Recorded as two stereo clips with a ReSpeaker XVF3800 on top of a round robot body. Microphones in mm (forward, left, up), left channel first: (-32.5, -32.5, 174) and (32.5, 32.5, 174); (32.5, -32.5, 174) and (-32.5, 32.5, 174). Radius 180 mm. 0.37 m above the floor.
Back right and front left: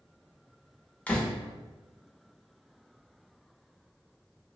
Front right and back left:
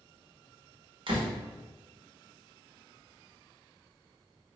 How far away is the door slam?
About 1.2 m.